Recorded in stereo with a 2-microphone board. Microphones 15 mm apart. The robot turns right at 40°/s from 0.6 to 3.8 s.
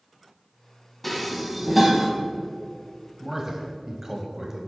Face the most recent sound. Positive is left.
turn(degrees=-25)  # may be behind; listen again after turning